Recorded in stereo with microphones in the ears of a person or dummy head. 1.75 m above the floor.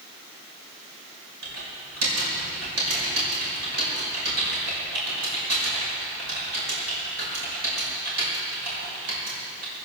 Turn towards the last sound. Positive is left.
turn(degrees=-85)